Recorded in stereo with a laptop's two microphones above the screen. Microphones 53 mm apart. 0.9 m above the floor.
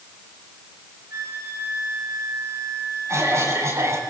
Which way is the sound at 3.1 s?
65° right (ahead or behind).